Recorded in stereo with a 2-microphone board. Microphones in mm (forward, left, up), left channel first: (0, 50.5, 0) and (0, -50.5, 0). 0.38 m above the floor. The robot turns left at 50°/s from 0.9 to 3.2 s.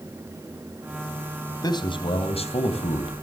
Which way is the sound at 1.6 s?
140° left.